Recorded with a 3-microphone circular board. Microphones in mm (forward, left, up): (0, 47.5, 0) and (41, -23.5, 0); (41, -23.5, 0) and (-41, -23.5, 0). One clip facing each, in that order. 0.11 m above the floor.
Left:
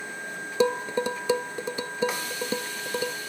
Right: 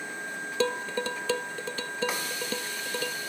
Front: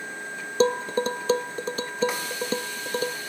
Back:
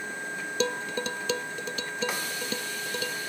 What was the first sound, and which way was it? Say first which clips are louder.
Dishes clattering: left 5 dB, front 8 dB; 50° left.